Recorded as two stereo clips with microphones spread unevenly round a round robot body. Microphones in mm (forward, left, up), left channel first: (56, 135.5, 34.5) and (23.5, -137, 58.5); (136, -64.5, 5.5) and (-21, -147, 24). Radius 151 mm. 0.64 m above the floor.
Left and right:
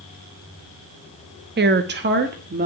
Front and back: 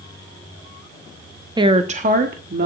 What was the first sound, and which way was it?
A woman speaking, 95° right.